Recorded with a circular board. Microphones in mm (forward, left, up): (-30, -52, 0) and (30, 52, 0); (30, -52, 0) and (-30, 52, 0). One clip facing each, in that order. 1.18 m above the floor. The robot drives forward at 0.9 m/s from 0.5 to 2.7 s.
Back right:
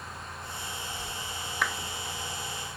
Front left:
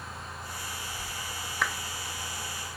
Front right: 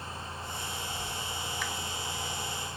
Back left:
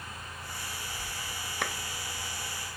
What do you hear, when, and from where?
1.6 s a clap: 150° left